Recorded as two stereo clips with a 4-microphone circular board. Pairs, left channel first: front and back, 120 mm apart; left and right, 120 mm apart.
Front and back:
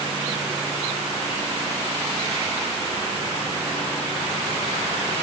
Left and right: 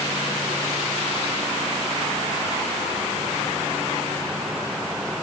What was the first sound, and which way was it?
Only background noise.